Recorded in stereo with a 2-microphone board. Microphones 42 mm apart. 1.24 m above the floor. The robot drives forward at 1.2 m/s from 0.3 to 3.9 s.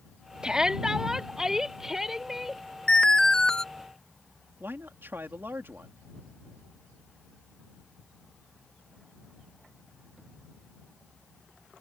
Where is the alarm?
25° left (ahead or behind); by 3.6 s 15° left (ahead or behind).